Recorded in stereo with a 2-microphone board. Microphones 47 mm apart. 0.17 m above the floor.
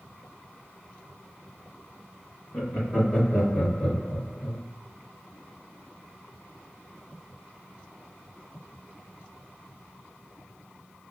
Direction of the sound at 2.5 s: 25° left (ahead or behind).